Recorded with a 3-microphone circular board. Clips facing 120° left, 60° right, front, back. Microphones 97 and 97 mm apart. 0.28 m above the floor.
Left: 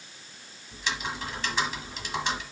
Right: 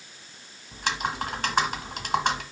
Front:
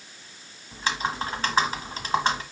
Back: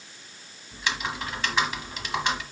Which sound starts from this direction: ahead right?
Typing on a keyboard, at 0.7 s.